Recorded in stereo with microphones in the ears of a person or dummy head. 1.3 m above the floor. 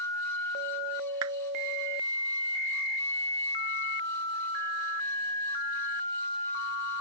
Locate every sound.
1.2 s a clap: 75° right (ahead or behind)